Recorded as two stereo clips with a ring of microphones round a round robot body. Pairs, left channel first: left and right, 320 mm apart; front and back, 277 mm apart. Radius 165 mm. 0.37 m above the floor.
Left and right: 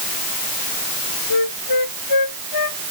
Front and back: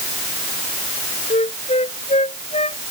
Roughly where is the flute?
Ahead left.